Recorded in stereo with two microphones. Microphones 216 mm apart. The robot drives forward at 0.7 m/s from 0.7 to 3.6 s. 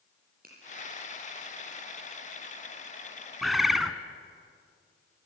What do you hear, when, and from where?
0.4 s a finger snap: 45° right (ahead or behind), 8 m
3.4 s a bird: centre (ahead or behind), 1.4 m